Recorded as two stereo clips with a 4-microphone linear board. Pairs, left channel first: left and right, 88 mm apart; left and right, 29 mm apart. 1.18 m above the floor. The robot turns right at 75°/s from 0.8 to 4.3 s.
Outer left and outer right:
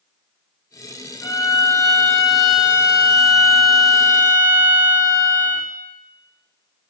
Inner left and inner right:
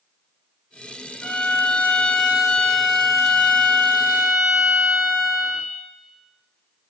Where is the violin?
85° left, 0.7 m; by 5.7 s 40° right, 0.7 m.